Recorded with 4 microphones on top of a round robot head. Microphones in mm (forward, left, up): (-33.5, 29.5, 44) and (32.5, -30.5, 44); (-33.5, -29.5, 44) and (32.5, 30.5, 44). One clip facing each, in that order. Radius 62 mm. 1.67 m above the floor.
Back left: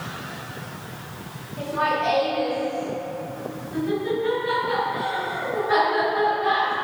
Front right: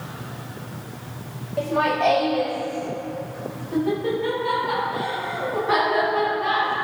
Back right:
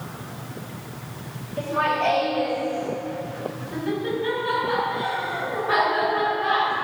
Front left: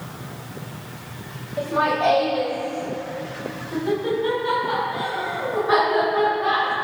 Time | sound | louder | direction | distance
1.6 | laughter | front right 3 dB, front left 2 dB | 35° right | 5 m